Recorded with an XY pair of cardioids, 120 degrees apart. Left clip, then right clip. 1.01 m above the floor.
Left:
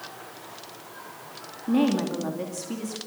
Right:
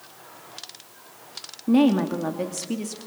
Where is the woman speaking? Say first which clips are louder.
Right 4 dB; 30° right, 2.5 m.